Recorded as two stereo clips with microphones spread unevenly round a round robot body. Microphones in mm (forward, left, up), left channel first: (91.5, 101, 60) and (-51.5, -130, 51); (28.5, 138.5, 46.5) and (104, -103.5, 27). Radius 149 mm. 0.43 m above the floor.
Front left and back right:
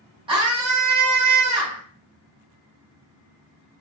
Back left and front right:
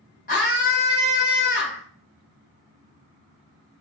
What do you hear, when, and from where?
0.3 s a scream: 170° left, 2.5 m